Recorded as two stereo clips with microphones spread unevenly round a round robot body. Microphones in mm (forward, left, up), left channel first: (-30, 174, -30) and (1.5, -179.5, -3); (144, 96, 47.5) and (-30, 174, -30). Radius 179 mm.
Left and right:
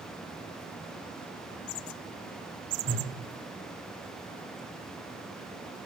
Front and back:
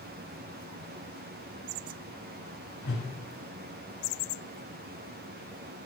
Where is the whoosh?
40° right, 1.8 m.